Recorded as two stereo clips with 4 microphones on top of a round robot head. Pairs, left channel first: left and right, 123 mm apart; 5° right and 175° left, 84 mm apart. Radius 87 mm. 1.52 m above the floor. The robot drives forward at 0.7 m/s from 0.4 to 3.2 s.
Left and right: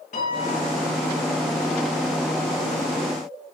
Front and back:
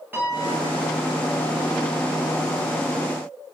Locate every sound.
0.1 s a piano: 110° left, 8.5 m